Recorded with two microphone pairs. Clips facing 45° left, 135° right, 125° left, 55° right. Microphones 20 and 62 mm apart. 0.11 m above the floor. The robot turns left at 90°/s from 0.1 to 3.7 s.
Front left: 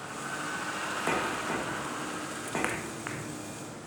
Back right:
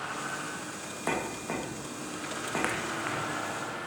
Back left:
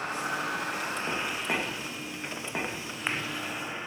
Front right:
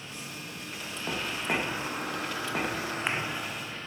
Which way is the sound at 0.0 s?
160° left.